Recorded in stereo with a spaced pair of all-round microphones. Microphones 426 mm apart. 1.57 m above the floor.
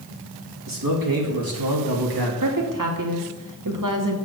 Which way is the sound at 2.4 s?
50° right (ahead or behind).